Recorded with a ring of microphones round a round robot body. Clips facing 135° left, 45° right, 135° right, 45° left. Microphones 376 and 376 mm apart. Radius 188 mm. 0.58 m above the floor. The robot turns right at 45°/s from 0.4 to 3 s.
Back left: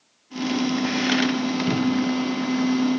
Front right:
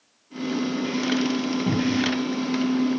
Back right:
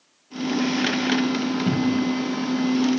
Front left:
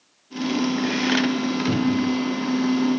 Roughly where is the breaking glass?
No breaking glass in this recording.